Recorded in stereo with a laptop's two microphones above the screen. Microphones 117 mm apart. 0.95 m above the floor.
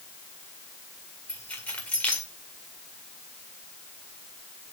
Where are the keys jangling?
10° left (ahead or behind), 1.8 m.